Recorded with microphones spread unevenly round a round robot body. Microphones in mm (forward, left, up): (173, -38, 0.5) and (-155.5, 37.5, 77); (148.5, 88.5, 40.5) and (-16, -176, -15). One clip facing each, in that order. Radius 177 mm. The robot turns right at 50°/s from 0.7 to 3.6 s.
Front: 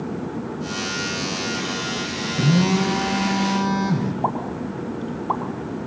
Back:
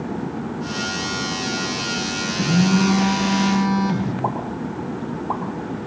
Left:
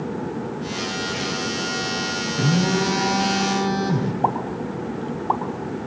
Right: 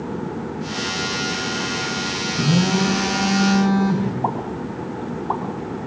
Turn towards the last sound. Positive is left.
turn(degrees=10)